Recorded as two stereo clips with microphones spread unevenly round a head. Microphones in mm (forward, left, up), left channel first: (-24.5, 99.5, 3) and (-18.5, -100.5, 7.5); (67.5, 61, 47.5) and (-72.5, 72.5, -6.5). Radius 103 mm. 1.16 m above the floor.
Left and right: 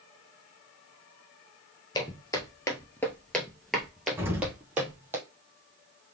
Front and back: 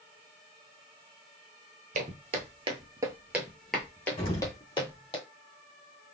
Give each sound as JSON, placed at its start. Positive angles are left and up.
{"t": 1.9, "sound": "footsteps", "azimuth_deg": 150, "distance_m": 1.3}
{"t": 4.2, "sound": "an explosion", "azimuth_deg": -10, "distance_m": 1.5}